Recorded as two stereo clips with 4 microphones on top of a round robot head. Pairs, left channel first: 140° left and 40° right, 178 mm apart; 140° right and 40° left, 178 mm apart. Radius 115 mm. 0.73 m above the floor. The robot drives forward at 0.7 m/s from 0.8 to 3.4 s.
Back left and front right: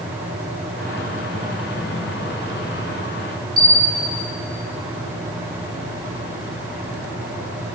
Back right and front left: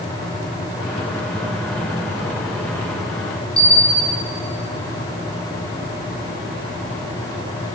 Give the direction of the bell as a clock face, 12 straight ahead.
3 o'clock.